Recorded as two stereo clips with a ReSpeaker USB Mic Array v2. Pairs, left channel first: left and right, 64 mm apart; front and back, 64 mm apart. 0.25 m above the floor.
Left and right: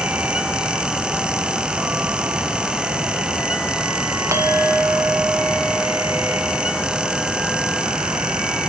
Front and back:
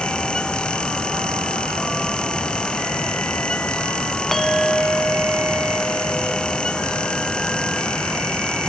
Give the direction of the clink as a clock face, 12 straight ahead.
3 o'clock.